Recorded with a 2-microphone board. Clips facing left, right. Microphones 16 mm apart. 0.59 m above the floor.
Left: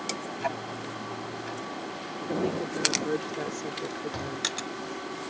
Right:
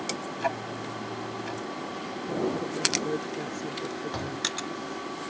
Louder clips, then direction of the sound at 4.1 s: Right 1 dB; 15° right (ahead or behind).